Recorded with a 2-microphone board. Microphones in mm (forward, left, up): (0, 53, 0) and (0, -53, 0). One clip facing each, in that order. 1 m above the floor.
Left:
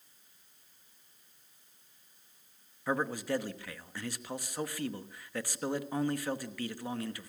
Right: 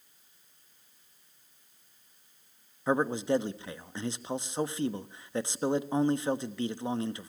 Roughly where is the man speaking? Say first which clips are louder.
Right 5 dB; right.